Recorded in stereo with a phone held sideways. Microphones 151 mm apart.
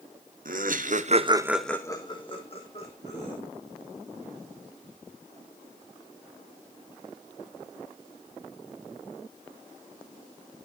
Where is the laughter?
65° right (ahead or behind), 1.2 m; by 3.4 s 45° left (ahead or behind), 2 m.